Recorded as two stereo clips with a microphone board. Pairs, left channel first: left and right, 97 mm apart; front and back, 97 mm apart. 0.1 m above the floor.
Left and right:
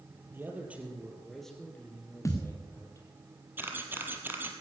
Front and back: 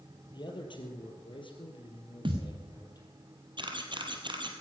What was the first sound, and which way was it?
A man speaking, 25° right.